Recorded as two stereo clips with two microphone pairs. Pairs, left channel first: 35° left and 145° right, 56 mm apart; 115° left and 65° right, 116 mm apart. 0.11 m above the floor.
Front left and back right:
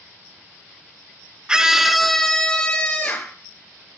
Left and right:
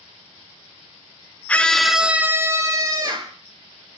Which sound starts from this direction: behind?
A scream, at 1.5 s.